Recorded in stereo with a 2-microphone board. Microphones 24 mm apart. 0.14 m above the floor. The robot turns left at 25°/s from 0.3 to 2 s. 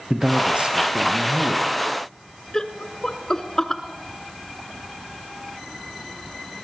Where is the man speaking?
60° right, 3.5 m; by 1.7 s 95° right, 3.5 m.